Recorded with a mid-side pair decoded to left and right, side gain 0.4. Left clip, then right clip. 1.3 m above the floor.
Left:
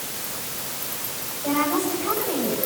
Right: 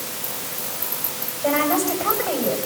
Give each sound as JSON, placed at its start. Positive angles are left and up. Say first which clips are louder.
{"t": 1.4, "sound": "a woman speaking", "louder": "right 3 dB", "azimuth_deg": -70, "distance_m": 9.0}